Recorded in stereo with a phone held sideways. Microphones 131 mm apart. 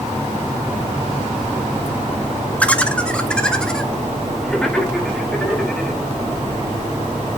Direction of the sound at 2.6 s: 10° left (ahead or behind).